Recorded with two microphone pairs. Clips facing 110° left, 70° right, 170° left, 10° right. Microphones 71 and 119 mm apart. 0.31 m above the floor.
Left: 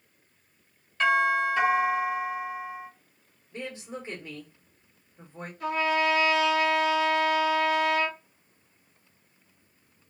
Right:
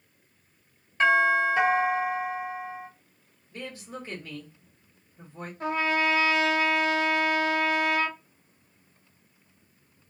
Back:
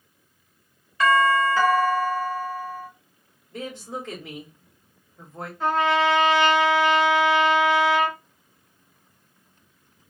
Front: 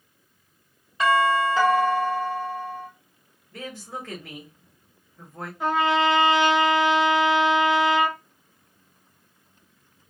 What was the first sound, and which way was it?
A doorbell, 35° right.